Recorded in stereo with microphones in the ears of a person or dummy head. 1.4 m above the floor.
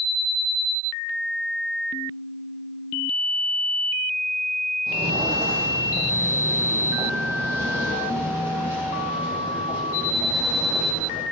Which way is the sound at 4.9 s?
35° right (ahead or behind).